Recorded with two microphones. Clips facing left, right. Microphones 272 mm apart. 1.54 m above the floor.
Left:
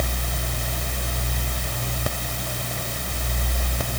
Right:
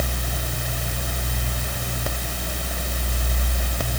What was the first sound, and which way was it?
Only background noise.